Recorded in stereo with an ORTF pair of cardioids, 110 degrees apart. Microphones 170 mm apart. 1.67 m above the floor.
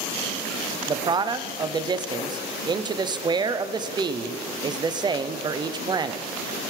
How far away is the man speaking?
About 0.7 m.